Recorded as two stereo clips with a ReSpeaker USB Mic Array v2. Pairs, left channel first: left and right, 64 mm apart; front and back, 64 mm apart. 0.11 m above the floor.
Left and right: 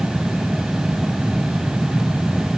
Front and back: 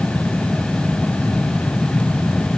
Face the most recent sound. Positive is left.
No sound to turn to.